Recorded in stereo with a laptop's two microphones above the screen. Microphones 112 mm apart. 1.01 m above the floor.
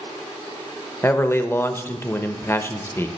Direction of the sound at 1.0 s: 20° left (ahead or behind).